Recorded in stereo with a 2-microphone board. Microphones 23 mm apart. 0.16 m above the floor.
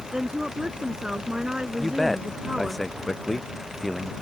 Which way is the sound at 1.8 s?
10° left (ahead or behind).